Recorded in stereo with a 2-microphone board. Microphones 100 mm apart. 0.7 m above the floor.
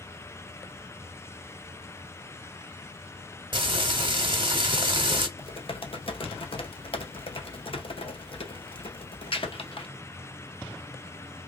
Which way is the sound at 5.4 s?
60° left (ahead or behind).